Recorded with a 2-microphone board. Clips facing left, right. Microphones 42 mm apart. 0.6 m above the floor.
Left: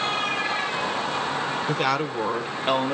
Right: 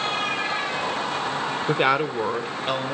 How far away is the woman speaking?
About 1.3 m.